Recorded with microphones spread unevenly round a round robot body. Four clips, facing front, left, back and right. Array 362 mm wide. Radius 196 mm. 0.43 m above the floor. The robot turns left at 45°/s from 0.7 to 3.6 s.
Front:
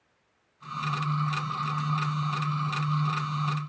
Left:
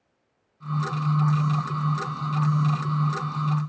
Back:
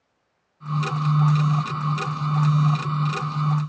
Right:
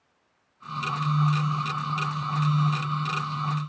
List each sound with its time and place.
Only background noise.